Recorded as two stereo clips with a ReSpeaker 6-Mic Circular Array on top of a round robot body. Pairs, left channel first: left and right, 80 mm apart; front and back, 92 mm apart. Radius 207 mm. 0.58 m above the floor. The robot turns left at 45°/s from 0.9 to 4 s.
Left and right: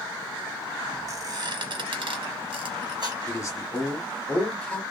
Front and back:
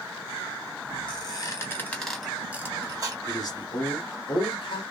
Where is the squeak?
40° right, 1.2 m; by 3.2 s 135° right, 1.2 m.